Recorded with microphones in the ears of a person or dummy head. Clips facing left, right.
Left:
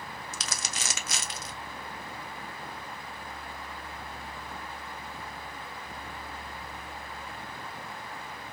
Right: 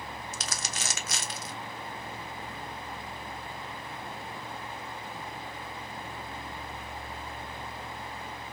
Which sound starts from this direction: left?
Crumpling, at 0.3 s.